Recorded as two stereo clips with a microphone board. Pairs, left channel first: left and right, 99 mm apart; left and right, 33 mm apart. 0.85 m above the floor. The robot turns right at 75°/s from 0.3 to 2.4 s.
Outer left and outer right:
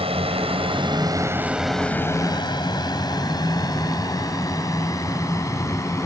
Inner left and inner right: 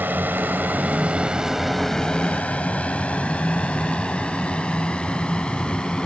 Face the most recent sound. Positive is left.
turn(degrees=30)  # may be behind; listen again after turning